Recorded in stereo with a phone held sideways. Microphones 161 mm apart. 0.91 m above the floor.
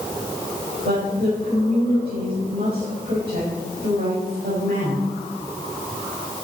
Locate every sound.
0.8 s a woman speaking: 75° right (ahead or behind), 5.5 m